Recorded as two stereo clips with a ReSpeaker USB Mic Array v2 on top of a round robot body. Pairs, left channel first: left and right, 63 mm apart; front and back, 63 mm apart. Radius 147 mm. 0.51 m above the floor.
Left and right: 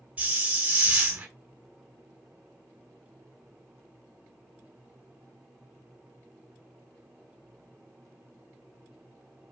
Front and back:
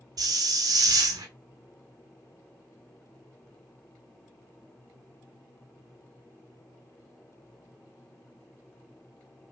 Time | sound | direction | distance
0.2 | a hiss | 160° right | 0.9 m